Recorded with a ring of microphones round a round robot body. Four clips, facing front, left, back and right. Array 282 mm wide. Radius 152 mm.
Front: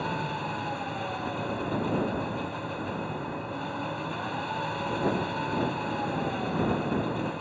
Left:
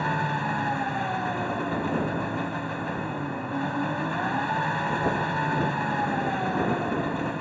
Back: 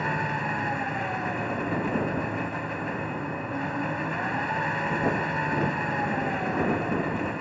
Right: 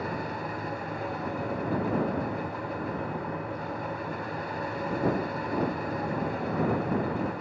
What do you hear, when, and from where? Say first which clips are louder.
0.0 s an engine running: left 6 dB, back 3 dB; 105° left